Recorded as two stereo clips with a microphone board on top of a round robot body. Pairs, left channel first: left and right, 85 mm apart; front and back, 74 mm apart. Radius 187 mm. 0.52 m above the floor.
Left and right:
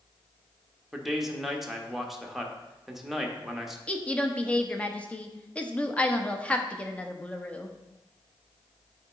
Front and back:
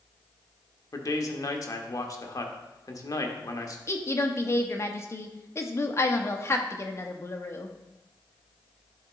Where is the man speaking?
5° right, 1.2 m.